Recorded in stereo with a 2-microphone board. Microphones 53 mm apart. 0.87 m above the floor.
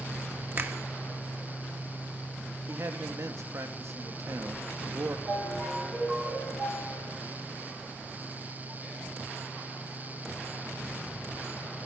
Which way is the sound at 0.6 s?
45° right (ahead or behind).